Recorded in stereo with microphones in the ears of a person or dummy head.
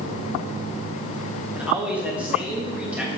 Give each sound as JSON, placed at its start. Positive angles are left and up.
{"t": 1.6, "sound": "a man speaking", "side_deg": -5, "distance_m": 1.7}